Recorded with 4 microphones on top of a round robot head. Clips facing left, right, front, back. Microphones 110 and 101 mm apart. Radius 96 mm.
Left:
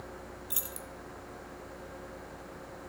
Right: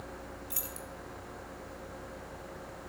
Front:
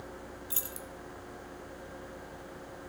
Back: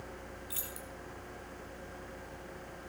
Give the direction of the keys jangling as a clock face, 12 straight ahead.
11 o'clock.